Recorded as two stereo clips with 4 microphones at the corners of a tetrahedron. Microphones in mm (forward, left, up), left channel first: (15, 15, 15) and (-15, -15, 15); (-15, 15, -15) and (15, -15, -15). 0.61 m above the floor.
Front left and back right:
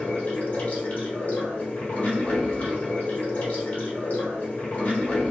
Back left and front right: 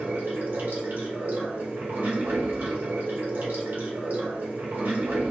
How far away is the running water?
About 1.4 m.